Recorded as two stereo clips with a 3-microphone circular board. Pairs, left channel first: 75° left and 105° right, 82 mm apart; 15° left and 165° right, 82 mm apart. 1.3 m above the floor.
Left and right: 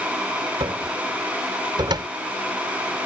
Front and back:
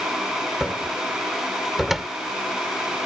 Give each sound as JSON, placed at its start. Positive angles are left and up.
{"t": 0.6, "sound": "a cupboard door", "azimuth_deg": -75}